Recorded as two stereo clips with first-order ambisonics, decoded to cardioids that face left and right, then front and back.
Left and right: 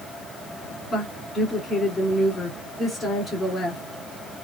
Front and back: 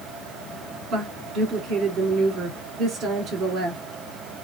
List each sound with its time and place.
0.9 s a woman speaking: 155° left, 1.6 m